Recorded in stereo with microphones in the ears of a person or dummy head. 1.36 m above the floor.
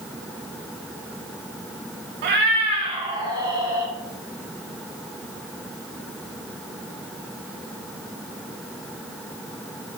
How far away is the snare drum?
No snare drum in this recording.